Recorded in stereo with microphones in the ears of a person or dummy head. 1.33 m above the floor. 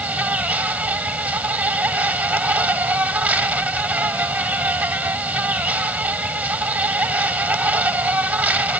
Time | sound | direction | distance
0.0 | an insect | 5° right (ahead or behind) | ?